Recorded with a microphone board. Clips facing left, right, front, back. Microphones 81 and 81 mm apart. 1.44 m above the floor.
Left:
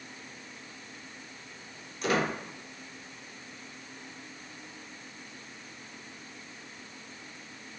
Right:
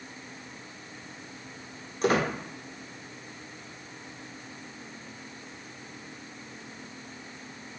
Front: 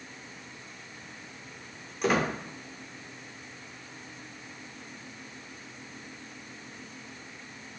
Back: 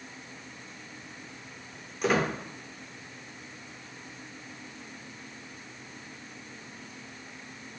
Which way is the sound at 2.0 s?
90° right.